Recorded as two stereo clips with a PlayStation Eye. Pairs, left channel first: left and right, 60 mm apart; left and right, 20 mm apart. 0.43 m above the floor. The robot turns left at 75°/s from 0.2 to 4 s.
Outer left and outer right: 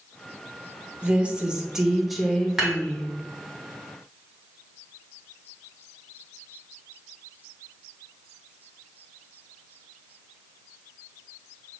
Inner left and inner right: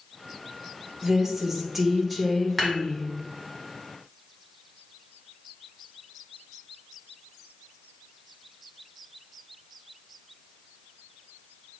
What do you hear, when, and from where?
1.0 s a woman speaking: 20° right (ahead or behind), 0.7 m; by 3.1 s 15° left (ahead or behind), 0.7 m
2.6 s dishes clattering: 10° right (ahead or behind), 2.0 m; by 2.8 s 25° right (ahead or behind), 2.0 m